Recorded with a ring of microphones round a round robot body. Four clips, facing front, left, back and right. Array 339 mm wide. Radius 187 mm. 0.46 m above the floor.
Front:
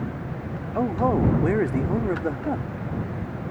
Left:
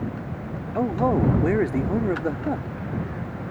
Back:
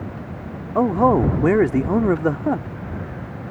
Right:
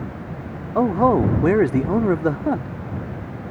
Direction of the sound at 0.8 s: 140° right.